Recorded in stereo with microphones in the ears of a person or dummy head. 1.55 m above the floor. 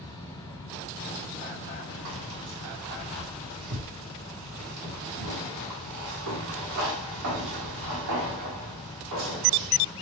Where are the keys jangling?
70° right (ahead or behind), 1.7 m.